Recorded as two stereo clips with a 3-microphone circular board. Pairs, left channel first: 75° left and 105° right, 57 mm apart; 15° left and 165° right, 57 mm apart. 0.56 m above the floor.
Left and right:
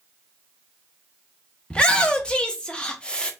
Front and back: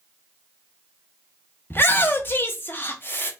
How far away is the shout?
About 0.8 m.